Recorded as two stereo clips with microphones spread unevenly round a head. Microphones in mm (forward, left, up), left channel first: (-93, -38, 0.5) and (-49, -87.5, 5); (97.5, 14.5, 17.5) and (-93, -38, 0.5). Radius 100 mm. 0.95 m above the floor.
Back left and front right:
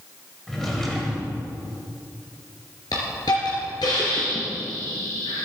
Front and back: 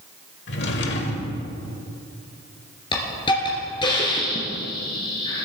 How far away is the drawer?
About 1.4 m.